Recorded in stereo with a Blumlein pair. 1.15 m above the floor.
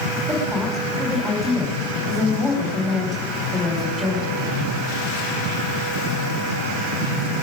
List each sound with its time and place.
0.3 s a woman speaking: straight ahead, 4 m